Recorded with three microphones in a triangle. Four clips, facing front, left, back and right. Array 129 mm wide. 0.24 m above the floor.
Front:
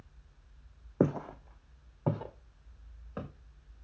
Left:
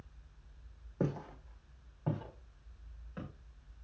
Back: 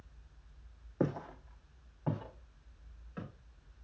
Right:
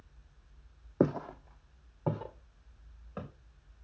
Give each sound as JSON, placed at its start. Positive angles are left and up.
{"t": 1.0, "sound": "footsteps", "azimuth_deg": -50, "distance_m": 0.6}